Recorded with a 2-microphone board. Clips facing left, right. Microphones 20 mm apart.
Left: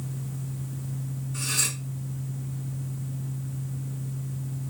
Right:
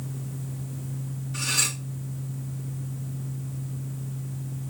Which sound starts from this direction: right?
Cutlery clinking, at 1.3 s.